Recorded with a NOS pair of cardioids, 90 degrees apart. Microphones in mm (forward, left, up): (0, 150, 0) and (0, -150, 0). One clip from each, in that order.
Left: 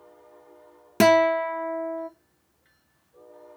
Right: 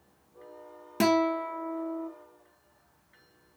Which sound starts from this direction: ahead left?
A guitar, at 1.0 s.